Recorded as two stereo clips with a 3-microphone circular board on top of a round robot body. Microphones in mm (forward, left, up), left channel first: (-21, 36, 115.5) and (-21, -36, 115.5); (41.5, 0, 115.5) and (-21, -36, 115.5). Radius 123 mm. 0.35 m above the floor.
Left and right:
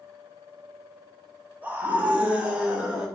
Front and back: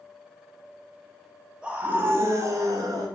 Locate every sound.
1.6 s a scream: 100° right, 1.1 m; by 3.1 s 165° right, 1.7 m